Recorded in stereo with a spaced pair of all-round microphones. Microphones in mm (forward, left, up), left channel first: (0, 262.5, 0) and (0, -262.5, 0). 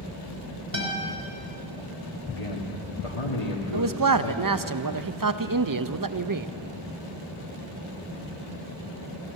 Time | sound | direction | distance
0.7 | a guitar | 85° right | 3 m
2.3 | a man speaking | 80° left | 1.9 m
3.7 | a man speaking | 40° right (ahead or behind) | 0.6 m